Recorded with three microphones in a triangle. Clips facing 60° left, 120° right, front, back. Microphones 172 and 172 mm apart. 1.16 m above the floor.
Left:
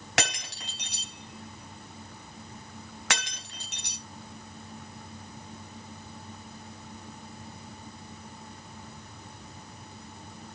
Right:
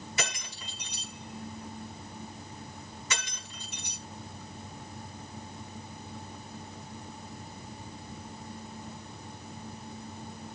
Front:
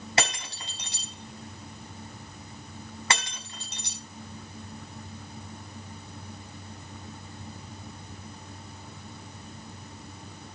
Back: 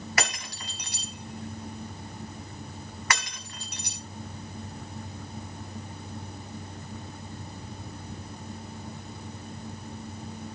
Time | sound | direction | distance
0.2 | breaking glass | 65° left | 4.5 m